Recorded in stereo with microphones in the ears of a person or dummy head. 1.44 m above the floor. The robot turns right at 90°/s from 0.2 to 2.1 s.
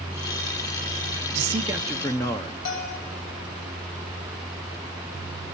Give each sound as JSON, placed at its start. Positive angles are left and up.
{"t": 1.4, "sound": "a man speaking", "azimuth_deg": -50, "distance_m": 0.8}
{"t": 2.6, "sound": "a bell", "side_deg": 85, "distance_m": 8.0}